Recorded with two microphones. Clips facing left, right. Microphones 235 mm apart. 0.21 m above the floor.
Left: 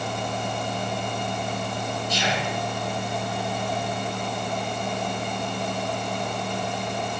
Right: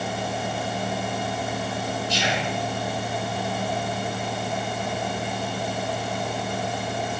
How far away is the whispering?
About 3 m.